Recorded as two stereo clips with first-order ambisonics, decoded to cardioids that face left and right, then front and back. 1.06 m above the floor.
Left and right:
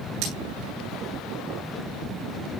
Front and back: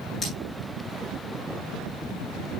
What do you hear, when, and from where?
0.2 s cutlery clinking: 70° right, 9.5 m